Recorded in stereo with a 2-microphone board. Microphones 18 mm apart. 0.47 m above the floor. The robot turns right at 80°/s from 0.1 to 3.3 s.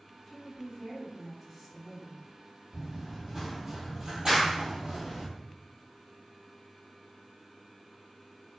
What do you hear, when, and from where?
0.3 s a woman speaking: 85° left, 2.0 m; by 2.2 s 120° right, 2.0 m
2.7 s running footsteps: 45° right (ahead or behind), 1.2 m; by 5.3 s 70° right (ahead or behind), 1.1 m
4.3 s a clap: 15° left (ahead or behind), 0.8 m